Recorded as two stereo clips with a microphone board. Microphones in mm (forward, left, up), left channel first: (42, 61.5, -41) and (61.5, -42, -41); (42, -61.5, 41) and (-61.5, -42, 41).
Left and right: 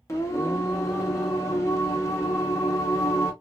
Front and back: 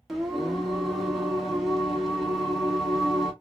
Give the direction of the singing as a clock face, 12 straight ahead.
9 o'clock.